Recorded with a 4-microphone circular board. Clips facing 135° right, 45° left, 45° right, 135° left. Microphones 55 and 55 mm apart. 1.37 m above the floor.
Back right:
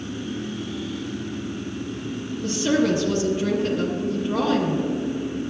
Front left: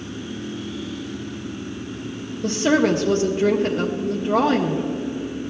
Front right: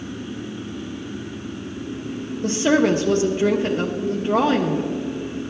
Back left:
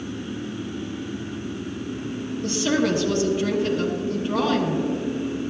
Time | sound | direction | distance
2.4 | a woman speaking | straight ahead | 0.8 m